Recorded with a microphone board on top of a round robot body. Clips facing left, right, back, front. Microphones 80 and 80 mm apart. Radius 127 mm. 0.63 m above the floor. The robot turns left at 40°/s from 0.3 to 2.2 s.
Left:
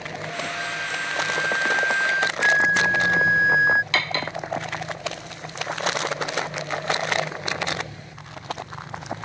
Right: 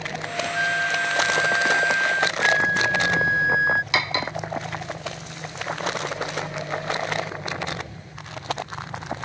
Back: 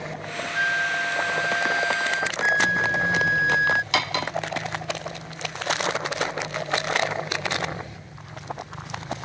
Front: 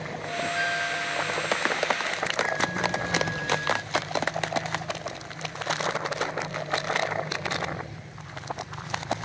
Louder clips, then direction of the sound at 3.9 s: Right 1 dB, back 2 dB; 165° right.